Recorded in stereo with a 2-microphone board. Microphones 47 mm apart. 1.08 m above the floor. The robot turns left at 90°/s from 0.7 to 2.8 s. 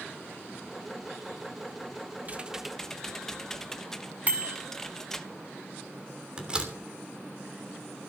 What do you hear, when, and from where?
2.2 s typing on a keyboard: 145° right, 1.0 m; by 5.3 s 170° left, 1.0 m
4.3 s a bicycle bell: 30° right (ahead or behind), 5 m
6.4 s a door slam: 20° right (ahead or behind), 3 m